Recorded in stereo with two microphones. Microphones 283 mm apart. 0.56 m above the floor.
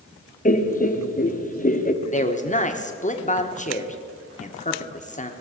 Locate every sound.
0.5 s laughter: 30° left (ahead or behind), 1.0 m
2.0 s a man speaking: 25° left (ahead or behind), 1.2 m